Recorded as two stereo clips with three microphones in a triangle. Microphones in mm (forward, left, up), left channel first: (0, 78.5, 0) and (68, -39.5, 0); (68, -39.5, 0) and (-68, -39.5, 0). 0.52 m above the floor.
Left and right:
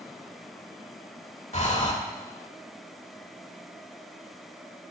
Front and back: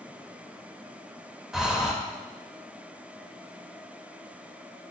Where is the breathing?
95° left, 1.1 m.